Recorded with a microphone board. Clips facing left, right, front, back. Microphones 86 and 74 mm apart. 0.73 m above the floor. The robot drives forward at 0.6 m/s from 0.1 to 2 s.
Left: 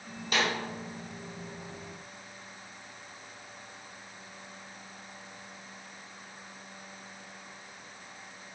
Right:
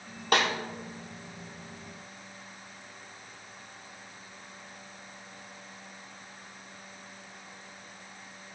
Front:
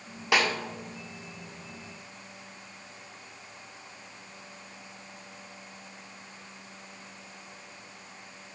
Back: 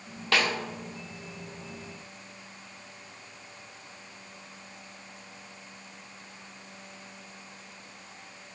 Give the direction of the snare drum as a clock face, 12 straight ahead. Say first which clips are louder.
Right 4 dB, front 1 dB; 2 o'clock.